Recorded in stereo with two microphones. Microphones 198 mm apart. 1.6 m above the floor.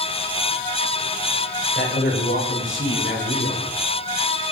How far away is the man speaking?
About 8.5 m.